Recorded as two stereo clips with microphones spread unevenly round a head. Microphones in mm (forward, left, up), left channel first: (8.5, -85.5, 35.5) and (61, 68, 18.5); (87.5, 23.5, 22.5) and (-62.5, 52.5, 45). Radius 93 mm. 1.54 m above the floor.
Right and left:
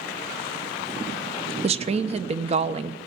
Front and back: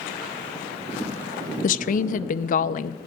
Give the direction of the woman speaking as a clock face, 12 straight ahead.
11 o'clock.